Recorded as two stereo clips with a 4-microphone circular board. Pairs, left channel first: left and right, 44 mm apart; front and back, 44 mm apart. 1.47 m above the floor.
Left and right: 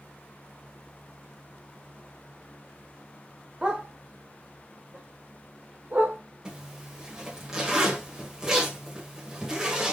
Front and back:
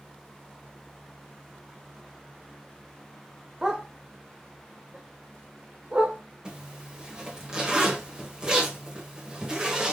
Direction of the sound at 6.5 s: 145° right.